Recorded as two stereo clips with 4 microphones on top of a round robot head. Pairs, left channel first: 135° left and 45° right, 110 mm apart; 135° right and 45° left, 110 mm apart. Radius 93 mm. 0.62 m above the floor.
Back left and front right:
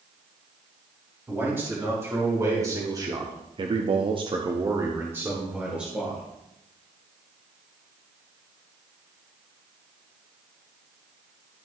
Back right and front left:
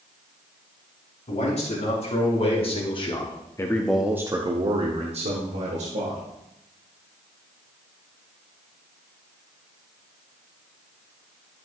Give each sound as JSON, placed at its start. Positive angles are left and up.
{"t": 1.3, "sound": "a man speaking", "azimuth_deg": -115, "distance_m": 3.5}